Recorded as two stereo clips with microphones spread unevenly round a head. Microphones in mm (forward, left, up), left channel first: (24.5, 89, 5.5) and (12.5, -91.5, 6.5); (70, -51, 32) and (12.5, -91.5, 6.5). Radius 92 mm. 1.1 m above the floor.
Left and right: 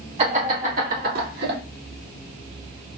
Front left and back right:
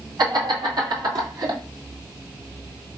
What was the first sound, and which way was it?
Laughter, 155° right.